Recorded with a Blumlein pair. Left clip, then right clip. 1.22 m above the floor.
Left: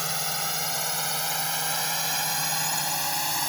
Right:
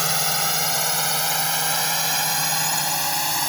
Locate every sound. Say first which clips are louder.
0.0 s a drone: right 7 dB; 20° right; by 3.5 s 10° right